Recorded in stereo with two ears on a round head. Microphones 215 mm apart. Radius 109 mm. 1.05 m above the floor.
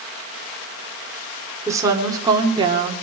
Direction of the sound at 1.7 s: 15° right (ahead or behind).